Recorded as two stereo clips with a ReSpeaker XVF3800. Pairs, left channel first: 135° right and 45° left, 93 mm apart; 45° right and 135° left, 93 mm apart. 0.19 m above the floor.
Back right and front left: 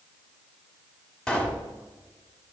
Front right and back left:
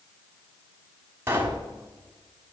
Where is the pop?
155° left, 1.4 m.